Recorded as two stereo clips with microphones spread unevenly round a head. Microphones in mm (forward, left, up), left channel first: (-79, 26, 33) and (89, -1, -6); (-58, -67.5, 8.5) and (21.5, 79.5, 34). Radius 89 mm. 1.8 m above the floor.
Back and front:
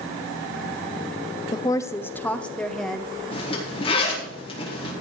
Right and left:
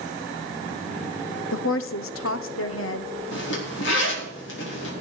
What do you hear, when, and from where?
1.5 s a woman speaking: 125° right, 0.9 m; by 3.1 s 100° right, 1.8 m
3.3 s a zipper: 130° right, 4.5 m